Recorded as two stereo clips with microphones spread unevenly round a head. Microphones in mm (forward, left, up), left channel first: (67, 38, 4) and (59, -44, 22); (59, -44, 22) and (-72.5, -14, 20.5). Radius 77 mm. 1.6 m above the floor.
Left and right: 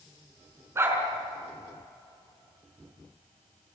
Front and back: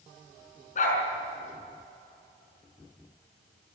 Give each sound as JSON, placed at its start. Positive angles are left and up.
{"t": 0.8, "sound": "a dog barking", "azimuth_deg": -40, "distance_m": 5.5}